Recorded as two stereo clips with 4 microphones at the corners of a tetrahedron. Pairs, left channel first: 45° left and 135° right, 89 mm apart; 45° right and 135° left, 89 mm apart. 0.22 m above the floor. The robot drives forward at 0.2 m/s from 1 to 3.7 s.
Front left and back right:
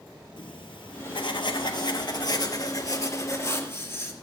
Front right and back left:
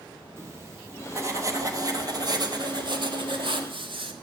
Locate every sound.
0.4 s writing: 75° left, 0.9 m; by 4.1 s 110° left, 0.9 m